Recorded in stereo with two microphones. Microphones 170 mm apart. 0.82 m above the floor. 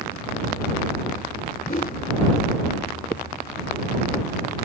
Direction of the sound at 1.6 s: 55° left (ahead or behind).